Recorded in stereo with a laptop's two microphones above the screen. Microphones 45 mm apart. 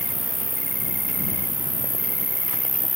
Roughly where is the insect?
Right.